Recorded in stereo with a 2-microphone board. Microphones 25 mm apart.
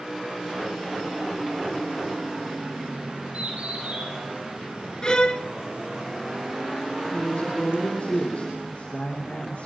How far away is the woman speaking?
About 8.5 m.